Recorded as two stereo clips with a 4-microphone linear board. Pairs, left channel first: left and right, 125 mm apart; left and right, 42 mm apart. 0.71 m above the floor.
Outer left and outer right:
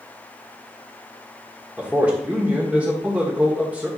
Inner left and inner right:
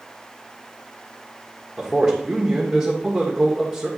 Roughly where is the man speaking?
Centre.